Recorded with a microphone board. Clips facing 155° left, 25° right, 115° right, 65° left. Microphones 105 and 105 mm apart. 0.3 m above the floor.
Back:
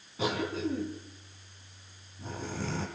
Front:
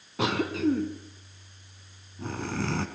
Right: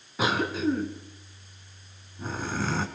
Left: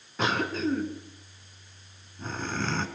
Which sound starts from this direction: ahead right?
A cough, at 0.2 s.